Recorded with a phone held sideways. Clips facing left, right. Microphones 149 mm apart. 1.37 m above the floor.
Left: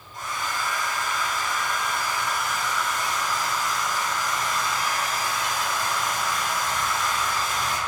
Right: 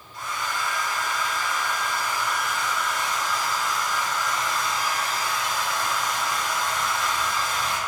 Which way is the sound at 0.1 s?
45° left (ahead or behind).